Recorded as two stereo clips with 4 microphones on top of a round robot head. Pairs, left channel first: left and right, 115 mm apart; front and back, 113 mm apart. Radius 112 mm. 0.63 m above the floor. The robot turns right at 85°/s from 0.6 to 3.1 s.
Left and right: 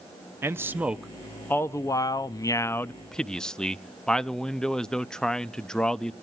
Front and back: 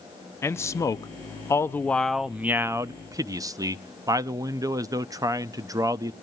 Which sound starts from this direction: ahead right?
A man speaking, at 0.4 s.